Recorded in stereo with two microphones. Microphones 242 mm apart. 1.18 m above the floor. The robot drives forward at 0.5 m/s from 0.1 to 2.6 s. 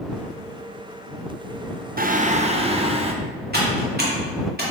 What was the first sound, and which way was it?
Singing, 40° right (ahead or behind).